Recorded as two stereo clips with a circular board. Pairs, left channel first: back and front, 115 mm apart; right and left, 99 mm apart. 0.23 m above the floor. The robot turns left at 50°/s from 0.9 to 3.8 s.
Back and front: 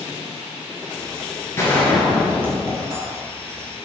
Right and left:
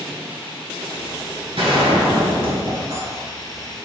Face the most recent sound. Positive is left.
turn(degrees=5)